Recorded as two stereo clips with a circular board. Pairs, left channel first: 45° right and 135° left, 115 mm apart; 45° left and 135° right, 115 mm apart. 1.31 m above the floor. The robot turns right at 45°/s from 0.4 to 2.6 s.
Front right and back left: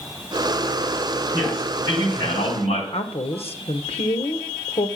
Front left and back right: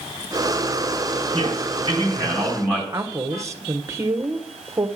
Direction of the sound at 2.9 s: 70° right.